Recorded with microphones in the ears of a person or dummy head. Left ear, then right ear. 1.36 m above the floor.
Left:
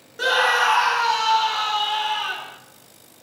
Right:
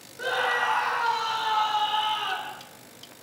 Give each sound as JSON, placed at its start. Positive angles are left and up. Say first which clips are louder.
{"t": 0.2, "sound": "a scream", "louder": "left 7 dB", "side_deg": 70, "distance_m": 0.7}